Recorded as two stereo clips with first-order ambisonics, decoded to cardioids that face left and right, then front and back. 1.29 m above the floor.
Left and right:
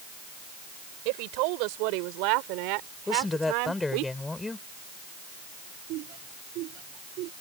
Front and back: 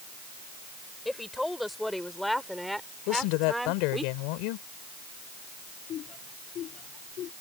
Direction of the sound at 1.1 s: 85° right.